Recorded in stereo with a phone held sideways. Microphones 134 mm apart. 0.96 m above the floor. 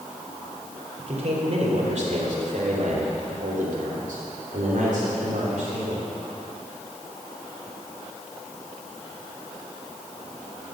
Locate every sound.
1.0 s a man speaking: 50° right (ahead or behind), 3.5 m; by 6.0 s 65° right (ahead or behind), 3.5 m